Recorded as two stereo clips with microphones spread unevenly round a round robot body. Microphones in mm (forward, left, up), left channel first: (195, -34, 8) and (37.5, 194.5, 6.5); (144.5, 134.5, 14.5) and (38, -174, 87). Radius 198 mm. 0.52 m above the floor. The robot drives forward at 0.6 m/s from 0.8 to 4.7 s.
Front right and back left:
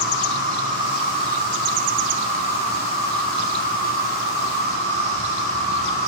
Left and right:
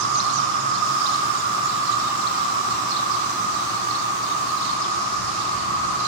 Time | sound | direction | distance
0.0 | an insect | 120° right | 5 m